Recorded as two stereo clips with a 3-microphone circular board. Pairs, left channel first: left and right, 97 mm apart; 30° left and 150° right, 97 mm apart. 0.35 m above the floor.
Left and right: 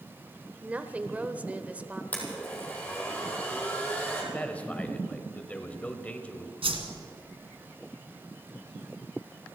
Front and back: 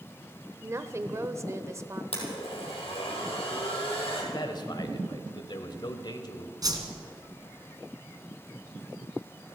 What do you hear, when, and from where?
0.6 s a woman speaking: 150° right, 0.9 m
2.1 s a blender: 15° left, 4 m
4.3 s a man speaking: 20° left, 1.3 m
6.6 s a whoosh: 105° right, 1.8 m